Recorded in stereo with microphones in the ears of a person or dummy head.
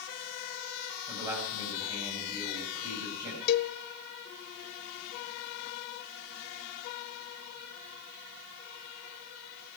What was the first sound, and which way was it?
A man speaking, 20° right (ahead or behind).